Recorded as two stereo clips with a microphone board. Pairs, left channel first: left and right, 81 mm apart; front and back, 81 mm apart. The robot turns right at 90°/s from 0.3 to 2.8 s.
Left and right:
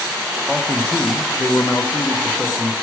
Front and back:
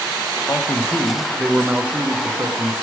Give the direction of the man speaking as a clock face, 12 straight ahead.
12 o'clock.